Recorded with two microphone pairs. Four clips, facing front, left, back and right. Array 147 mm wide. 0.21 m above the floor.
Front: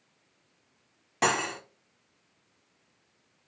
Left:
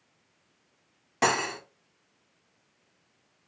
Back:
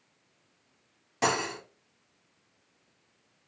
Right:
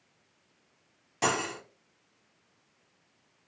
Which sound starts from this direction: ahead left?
Cutlery clinking, at 1.2 s.